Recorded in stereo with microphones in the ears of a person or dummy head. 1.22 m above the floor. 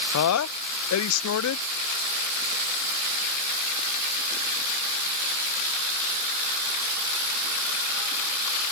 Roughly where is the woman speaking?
Left.